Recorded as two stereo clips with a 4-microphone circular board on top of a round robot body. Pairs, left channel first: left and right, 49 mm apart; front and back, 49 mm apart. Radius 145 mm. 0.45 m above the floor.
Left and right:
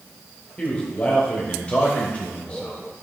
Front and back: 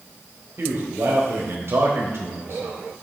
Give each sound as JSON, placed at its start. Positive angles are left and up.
{"t": 0.6, "sound": "a man speaking", "azimuth_deg": 155, "distance_m": 3.0}